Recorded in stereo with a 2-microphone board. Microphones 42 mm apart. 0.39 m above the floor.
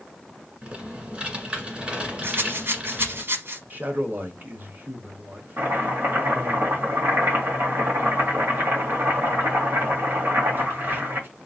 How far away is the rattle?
About 1.0 m.